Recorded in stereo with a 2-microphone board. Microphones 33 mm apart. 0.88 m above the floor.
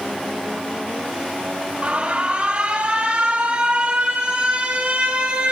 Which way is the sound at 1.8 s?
40° right (ahead or behind).